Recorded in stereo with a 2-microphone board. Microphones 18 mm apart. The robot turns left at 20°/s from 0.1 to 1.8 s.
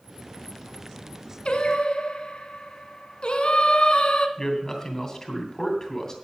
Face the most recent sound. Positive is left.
turn(degrees=25)  # may be behind; listen again after turning